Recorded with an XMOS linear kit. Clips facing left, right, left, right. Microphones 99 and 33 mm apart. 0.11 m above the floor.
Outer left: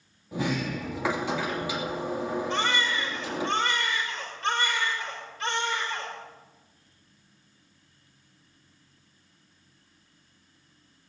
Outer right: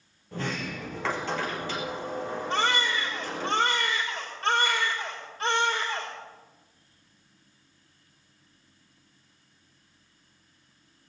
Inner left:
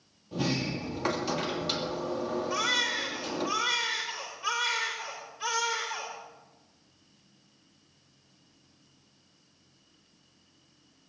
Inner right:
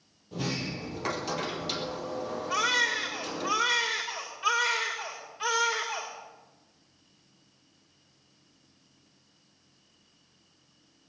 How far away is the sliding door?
About 2.5 m.